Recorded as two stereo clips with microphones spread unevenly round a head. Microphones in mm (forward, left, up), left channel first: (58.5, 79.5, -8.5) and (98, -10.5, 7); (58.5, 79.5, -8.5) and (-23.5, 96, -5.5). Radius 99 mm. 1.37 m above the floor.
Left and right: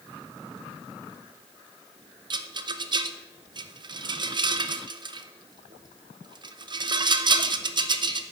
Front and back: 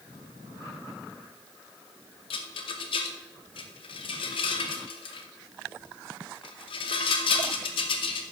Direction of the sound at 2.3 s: 35° right.